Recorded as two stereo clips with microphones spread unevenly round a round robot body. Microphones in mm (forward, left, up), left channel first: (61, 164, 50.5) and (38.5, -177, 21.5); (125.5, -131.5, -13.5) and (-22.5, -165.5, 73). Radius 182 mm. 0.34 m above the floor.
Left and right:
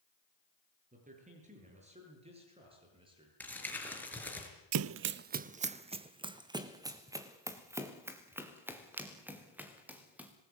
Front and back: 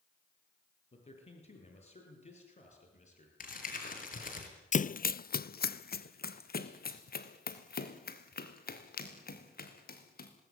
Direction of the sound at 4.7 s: 50° right.